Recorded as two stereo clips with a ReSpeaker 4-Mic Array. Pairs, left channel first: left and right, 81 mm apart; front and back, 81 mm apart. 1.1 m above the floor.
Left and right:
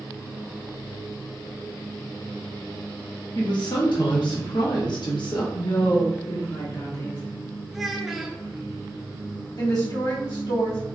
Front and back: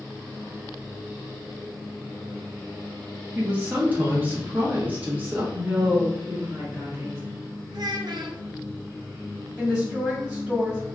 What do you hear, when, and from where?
3.4 s a woman speaking: 115° left, 0.9 m
5.5 s a woman speaking: 120° left, 1.6 m
7.7 s a child speaking: straight behind, 0.5 m
9.6 s a woman speaking: 105° left, 1.8 m